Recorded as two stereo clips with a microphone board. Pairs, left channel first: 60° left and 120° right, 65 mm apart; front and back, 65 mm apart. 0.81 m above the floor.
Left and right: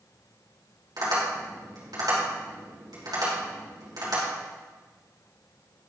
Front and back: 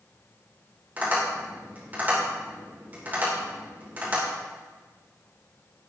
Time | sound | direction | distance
1.0 | tapping | 120° right | 3 m